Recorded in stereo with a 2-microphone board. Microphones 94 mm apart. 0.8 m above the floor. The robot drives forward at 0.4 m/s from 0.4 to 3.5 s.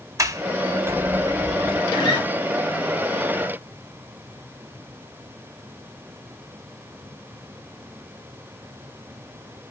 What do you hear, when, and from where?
0.2 s a sliding door: 35° right (ahead or behind), 0.7 m; by 1.8 s 20° right (ahead or behind), 1.2 m
1.9 s a guitar: 65° left (ahead or behind), 2.5 m